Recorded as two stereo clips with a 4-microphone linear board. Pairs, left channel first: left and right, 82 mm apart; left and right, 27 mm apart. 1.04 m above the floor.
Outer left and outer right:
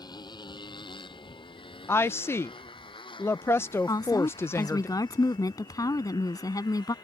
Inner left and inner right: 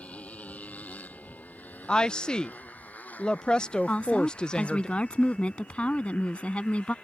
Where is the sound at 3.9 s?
45° left (ahead or behind).